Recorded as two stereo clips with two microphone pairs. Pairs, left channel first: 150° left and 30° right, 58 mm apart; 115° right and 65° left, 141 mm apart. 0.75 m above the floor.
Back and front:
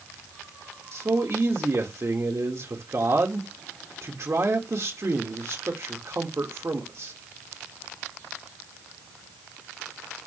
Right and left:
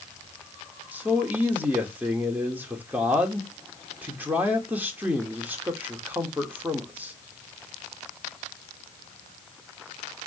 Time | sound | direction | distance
0.9 | a man speaking | 10° right | 2.5 m